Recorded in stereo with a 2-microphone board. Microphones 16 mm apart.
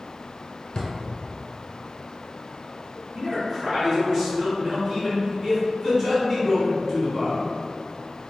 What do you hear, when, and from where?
0.8 s a drawer: 45° left (ahead or behind), 0.7 m
3.1 s a man speaking: 20° right (ahead or behind), 1.8 m